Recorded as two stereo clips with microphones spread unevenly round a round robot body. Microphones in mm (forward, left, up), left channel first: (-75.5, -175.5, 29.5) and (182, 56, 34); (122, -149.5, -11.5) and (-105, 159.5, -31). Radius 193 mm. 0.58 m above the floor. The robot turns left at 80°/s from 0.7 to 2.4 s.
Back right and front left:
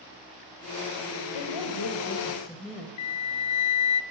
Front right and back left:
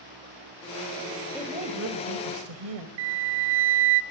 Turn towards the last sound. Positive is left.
turn(degrees=180)